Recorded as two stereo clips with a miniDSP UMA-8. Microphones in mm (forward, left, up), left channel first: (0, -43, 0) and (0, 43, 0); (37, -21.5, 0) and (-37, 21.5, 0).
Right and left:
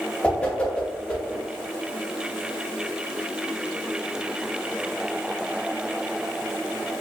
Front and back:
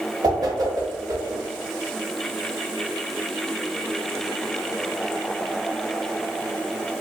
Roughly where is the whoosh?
Behind.